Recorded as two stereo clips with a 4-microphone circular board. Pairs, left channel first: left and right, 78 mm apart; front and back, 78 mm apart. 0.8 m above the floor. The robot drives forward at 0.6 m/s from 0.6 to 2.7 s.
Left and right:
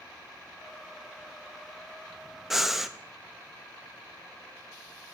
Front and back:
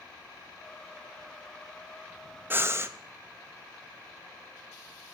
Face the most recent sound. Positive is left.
turn(degrees=-175)